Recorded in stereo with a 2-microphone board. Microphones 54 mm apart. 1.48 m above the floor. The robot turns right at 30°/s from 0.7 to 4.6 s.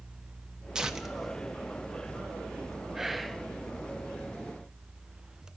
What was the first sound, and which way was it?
Tearing paper, 15° right (ahead or behind).